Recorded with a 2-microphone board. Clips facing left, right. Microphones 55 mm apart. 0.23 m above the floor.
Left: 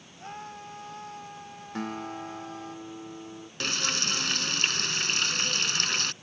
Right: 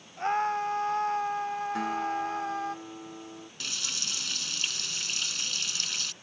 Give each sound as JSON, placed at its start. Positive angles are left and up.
{"t": 0.2, "sound": "a scream", "side_deg": -55}
{"t": 1.8, "sound": "a guitar", "side_deg": 0}
{"t": 3.6, "sound": "frying", "side_deg": 60}